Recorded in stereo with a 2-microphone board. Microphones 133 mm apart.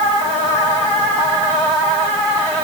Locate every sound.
Only background noise.